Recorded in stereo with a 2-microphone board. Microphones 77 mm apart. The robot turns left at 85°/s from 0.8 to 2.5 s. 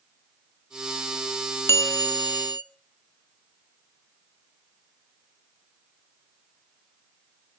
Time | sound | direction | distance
1.7 | a bell | 140° left | 1.5 m